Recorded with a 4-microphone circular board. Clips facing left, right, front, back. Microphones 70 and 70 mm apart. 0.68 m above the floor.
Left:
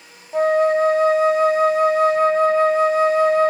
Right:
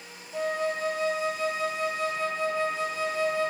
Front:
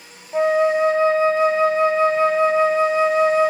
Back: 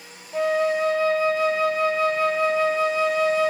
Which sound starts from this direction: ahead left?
A flute, at 0.3 s.